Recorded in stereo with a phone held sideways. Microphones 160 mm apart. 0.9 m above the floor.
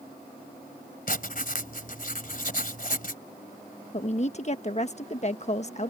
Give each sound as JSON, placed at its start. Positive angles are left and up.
{"t": 1.1, "sound": "writing", "side_deg": 60}
{"t": 3.9, "sound": "a woman speaking", "side_deg": 45}